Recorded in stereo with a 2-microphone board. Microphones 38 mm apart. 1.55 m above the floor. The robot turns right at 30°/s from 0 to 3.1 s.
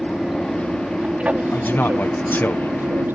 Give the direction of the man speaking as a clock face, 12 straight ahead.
10 o'clock.